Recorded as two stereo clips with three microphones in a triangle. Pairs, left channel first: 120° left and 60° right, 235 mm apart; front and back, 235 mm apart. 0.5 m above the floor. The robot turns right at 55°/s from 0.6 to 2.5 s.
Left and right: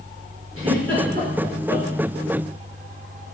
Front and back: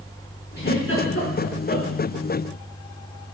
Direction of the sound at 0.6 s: 45° right.